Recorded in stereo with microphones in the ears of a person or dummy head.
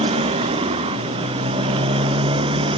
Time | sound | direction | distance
0.0 | a motorcycle | 30° right (ahead or behind) | ?